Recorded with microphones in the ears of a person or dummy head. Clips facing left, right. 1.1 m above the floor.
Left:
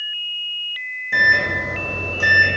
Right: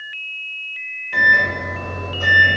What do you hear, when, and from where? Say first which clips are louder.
1.1 s a microwave: right 1 dB; 55° left (ahead or behind), 1.7 m